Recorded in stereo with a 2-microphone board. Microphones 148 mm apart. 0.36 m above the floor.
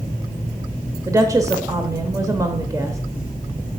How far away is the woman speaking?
About 0.9 m.